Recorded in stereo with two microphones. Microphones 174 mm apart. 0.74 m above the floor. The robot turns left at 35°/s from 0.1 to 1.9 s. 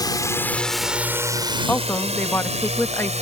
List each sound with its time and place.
0.0 s a drone: 25° left (ahead or behind); by 3.2 s 40° right (ahead or behind)
1.7 s a woman speaking: 10° left (ahead or behind); by 3.2 s 15° left (ahead or behind)